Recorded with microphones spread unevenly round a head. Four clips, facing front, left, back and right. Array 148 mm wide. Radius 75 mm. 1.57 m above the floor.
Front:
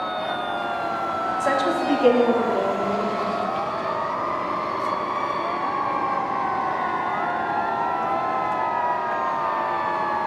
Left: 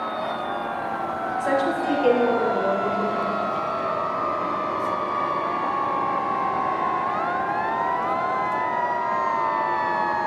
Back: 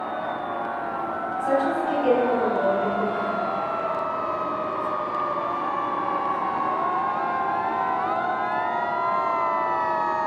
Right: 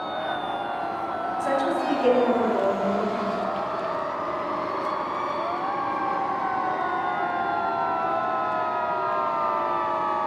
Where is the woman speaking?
10° left, 2 m; by 3.3 s 20° right, 3.5 m.